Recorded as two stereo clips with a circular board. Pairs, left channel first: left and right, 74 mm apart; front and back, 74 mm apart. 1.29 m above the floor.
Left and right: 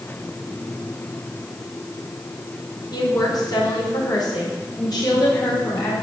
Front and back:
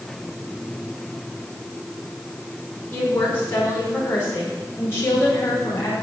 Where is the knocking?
No knocking in this recording.